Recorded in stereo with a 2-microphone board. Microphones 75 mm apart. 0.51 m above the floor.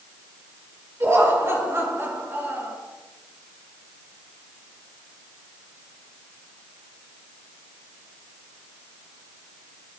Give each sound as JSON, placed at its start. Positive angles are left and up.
{"t": 1.0, "sound": "laughter", "side_deg": -40, "distance_m": 7.0}